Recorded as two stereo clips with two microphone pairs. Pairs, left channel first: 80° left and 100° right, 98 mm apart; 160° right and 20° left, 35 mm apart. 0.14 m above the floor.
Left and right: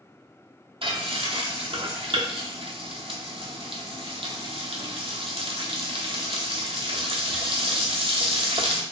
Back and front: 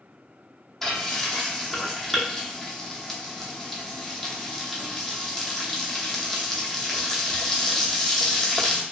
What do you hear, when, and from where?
0.8 s frying: 85° right, 0.8 m